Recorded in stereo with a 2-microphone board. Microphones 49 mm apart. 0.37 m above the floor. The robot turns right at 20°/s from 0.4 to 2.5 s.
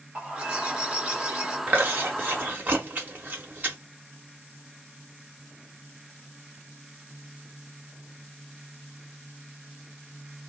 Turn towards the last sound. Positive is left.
turn(degrees=-40)  # may be behind; listen again after turning